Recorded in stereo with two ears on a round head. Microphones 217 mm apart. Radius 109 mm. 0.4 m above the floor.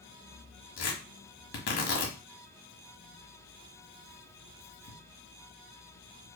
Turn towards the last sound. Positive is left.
turn(degrees=55)  # may be behind; listen again after turning